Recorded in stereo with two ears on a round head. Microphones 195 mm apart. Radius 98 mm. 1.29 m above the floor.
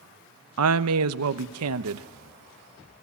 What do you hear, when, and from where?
0.6 s a woman speaking: 80° right, 0.9 m